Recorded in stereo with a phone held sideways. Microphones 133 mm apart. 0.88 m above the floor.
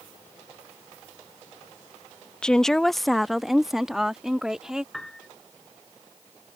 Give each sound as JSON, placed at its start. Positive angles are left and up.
{"t": 2.4, "sound": "a woman speaking", "side_deg": 5}
{"t": 4.9, "sound": "a piano", "side_deg": 5}